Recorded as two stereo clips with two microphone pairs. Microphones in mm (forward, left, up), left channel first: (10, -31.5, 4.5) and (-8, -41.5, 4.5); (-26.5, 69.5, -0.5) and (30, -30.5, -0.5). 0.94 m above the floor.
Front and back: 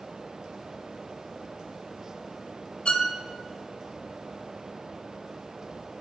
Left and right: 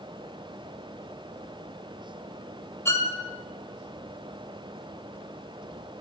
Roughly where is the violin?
Ahead left.